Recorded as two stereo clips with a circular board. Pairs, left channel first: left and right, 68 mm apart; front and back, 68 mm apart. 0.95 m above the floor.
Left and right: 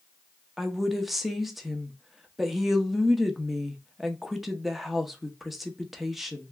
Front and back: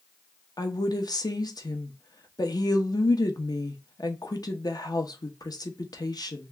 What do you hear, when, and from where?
0.6 s a woman speaking: 5° right, 0.7 m